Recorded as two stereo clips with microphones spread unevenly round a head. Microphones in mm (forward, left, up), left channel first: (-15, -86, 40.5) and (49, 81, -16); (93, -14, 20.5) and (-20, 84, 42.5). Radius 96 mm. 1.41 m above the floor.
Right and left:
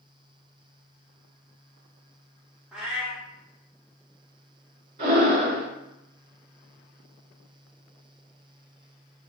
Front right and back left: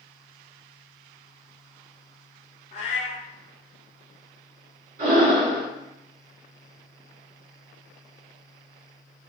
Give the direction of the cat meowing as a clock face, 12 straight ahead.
2 o'clock.